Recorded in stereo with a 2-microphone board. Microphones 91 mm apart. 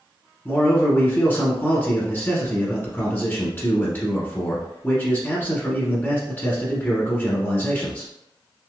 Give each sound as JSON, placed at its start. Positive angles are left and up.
{"t": 0.5, "sound": "a man speaking", "side_deg": 25, "distance_m": 1.1}